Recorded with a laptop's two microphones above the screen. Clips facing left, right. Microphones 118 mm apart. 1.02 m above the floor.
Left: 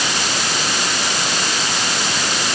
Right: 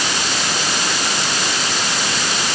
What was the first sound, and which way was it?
Only background noise.